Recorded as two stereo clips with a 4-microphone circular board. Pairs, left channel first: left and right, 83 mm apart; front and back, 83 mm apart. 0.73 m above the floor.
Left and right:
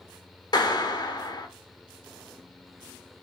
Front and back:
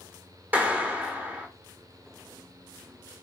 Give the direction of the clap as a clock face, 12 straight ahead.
8 o'clock.